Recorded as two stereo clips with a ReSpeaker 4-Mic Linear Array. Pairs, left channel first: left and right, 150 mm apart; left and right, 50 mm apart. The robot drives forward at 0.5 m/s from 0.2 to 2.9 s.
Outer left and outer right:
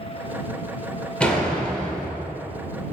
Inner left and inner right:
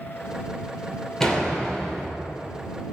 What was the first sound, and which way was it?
A door slam, 5° left (ahead or behind).